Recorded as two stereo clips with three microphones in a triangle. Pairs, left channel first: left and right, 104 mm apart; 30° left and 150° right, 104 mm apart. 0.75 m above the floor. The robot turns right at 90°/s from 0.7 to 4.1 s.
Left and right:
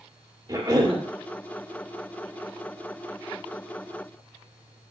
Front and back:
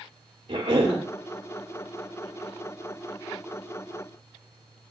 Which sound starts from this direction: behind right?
A cough, at 0.5 s.